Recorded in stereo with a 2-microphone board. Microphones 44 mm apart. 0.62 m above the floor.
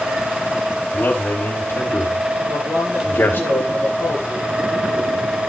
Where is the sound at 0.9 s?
50° left (ahead or behind), 3.5 m.